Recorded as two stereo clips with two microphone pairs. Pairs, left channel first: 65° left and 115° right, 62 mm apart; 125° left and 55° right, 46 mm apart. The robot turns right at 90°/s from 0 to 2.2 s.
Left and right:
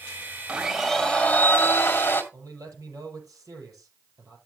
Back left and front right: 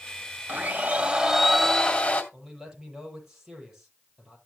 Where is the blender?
55° right, 1.7 m; by 2.2 s 95° left, 1.7 m.